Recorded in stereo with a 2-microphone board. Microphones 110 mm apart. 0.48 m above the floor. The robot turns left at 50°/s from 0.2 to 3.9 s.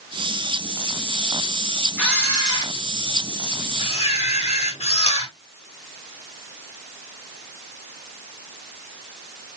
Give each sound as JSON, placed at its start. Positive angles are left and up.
{"t": 2.0, "sound": "a camera shutter", "azimuth_deg": 170, "distance_m": 6.5}